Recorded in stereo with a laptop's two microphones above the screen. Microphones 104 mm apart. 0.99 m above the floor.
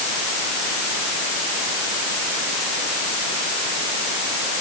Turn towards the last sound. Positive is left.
No sound to turn to.